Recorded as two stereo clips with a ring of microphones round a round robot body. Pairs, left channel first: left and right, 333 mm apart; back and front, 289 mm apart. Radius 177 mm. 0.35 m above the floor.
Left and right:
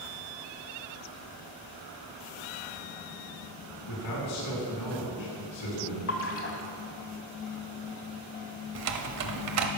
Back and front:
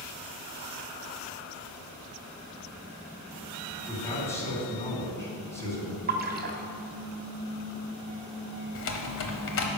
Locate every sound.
3.9 s a man speaking: 100° left, 4 m
6.1 s a splash: 50° left, 1.5 m
8.8 s typing on a keyboard: 130° right, 0.9 m